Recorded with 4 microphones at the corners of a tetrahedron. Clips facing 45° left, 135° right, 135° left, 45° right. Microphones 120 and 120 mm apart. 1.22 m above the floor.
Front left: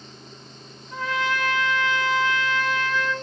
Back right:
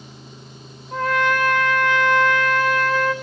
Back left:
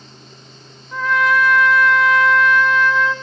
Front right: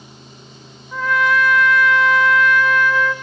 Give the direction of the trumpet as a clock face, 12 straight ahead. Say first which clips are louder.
Back right 6 dB, back left 1 dB; 4 o'clock.